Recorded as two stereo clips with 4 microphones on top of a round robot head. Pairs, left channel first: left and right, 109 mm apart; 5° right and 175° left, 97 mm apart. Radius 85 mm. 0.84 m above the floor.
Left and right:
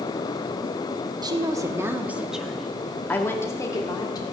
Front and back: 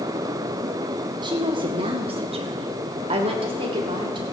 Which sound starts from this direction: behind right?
A woman speaking, at 1.2 s.